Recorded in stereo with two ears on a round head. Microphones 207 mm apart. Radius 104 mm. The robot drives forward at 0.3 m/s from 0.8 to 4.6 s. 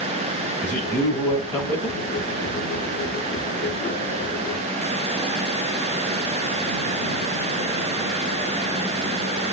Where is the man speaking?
5° left (ahead or behind), 3 m.